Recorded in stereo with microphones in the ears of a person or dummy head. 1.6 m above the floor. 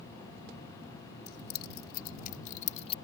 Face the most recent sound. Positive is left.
turn(degrees=35)  # may be behind; listen again after turning